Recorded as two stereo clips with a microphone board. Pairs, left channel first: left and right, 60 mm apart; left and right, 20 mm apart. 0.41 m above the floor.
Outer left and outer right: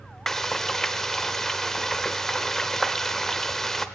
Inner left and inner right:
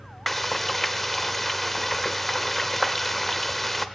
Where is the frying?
5° left (ahead or behind), 0.7 m.